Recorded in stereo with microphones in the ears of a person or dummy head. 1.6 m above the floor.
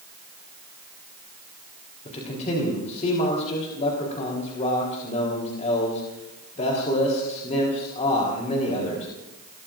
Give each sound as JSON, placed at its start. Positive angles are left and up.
{"t": 2.0, "sound": "a man speaking", "side_deg": 35, "distance_m": 3.5}